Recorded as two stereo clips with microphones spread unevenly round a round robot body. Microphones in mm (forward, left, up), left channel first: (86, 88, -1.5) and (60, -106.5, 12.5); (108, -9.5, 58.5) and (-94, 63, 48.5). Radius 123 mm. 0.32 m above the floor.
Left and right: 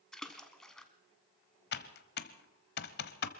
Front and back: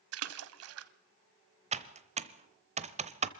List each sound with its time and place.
0.1 s a splash: 170° left, 0.7 m
1.7 s typing on a keyboard: 105° left, 0.8 m